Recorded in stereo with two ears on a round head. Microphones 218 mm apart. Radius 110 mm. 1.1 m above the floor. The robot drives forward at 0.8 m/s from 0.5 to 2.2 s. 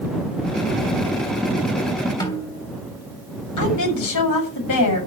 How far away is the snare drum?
About 3 m.